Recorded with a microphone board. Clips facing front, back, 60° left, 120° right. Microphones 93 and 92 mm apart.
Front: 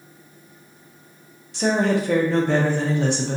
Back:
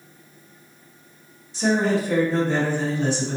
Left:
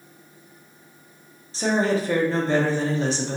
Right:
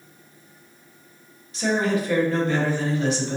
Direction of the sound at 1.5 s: 5° left.